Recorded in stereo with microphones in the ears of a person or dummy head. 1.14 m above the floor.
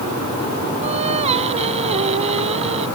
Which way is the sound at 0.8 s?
35° right (ahead or behind).